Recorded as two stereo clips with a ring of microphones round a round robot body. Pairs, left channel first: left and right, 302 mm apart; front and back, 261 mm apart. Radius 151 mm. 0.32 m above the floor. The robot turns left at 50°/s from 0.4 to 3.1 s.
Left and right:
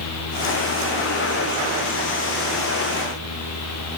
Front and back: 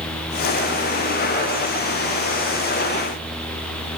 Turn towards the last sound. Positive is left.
No sound to turn to.